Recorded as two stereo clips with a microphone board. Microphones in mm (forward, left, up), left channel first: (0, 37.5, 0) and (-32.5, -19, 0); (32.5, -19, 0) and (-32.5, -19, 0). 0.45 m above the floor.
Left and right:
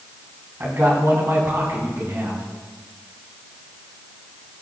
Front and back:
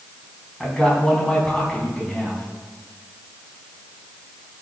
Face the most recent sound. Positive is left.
turn(degrees=-80)